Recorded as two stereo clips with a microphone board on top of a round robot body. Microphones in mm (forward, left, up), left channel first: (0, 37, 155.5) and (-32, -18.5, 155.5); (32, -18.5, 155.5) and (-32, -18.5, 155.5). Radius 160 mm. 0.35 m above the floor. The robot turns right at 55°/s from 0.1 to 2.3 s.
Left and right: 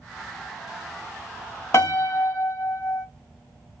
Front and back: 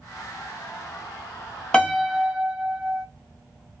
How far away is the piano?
About 1.4 m.